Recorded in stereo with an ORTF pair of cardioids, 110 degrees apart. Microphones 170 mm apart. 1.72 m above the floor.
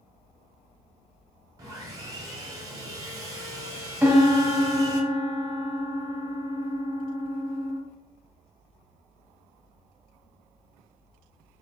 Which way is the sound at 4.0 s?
10° right.